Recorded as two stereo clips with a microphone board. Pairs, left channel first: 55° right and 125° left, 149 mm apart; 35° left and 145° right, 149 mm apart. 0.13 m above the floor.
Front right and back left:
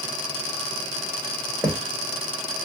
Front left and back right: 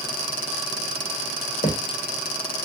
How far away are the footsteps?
About 1.3 m.